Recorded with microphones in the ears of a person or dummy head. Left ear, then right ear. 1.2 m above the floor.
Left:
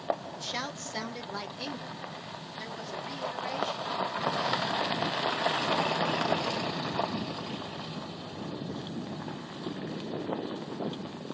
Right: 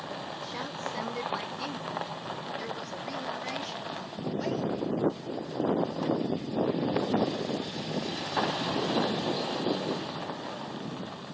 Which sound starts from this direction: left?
A woman speaking, at 0.4 s.